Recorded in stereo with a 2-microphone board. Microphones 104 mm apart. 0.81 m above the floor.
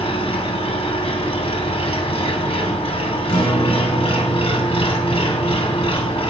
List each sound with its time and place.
0.0 s an engine running: 65° left (ahead or behind), 2 m
3.3 s a guitar: 45° left (ahead or behind), 3.5 m